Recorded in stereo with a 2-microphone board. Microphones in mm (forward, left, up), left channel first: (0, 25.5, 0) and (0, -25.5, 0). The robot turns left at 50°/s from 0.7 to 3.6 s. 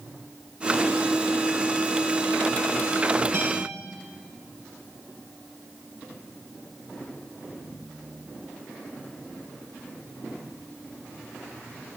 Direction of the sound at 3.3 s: 60° right (ahead or behind).